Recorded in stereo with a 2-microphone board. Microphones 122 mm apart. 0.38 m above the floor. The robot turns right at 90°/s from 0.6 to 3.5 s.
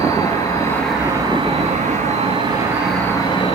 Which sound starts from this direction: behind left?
An insect, at 0.0 s.